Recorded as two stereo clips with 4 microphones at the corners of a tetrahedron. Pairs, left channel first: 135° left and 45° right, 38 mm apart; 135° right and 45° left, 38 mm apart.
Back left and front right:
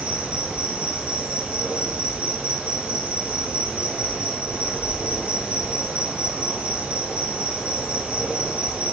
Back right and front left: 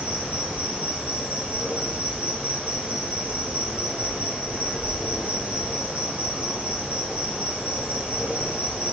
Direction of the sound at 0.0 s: 5° right.